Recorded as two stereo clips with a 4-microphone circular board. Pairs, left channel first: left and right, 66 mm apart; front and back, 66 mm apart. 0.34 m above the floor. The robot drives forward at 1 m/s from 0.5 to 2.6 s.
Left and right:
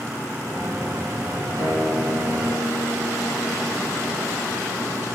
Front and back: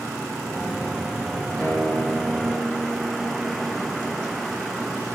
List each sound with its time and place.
1.6 s a guitar: 80° left, 5 m; by 5.0 s 90° left, 5 m